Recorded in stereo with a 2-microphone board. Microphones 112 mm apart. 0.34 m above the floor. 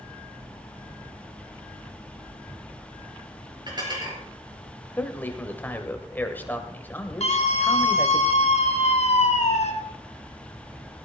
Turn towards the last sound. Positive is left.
turn(degrees=65)  # may be behind; listen again after turning